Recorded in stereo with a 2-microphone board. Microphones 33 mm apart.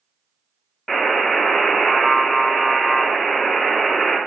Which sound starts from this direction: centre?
A buzzer, at 0.9 s.